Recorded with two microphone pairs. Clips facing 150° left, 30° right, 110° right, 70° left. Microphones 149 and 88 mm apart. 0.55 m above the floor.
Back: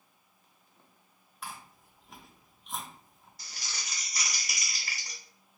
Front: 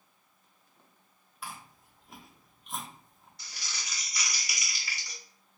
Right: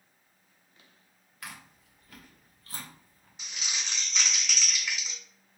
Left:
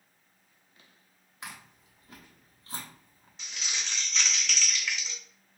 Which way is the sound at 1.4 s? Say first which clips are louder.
Even, even; 55° left.